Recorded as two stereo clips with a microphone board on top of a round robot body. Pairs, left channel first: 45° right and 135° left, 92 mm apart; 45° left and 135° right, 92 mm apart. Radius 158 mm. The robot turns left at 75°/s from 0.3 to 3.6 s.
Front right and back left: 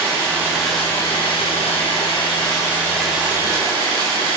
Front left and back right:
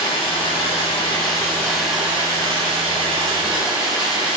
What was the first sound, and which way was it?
Running water, 70° left.